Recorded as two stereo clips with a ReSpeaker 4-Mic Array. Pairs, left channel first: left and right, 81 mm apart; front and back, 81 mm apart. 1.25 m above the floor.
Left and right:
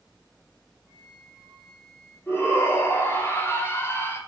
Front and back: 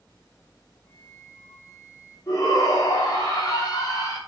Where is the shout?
30° left, 3.5 m.